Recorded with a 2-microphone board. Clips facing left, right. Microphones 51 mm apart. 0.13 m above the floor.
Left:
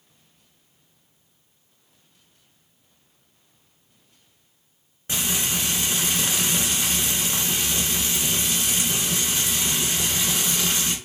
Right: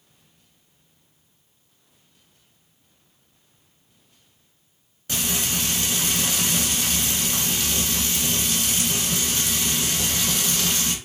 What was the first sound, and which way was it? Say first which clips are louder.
Frying: even; 20° left (ahead or behind).